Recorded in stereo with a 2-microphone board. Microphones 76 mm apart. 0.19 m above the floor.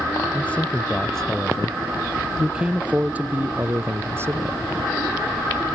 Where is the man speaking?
20° left (ahead or behind); by 4.6 s 35° right (ahead or behind).